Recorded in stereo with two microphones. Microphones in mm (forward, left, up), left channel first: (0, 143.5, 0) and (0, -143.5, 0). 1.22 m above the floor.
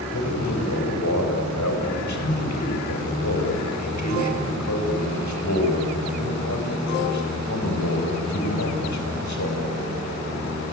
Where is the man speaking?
75° left (ahead or behind), 5 m.